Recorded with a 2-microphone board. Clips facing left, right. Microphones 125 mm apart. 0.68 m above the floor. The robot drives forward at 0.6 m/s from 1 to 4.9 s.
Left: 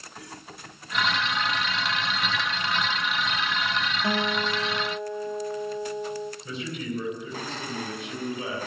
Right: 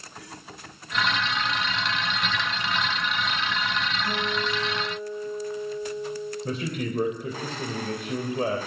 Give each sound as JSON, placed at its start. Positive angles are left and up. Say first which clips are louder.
{"t": 4.0, "sound": "a guitar", "louder": "left 4 dB", "side_deg": 60, "distance_m": 2.5}
{"t": 6.5, "sound": "a man speaking", "louder": "right 3 dB", "side_deg": -55, "distance_m": 3.5}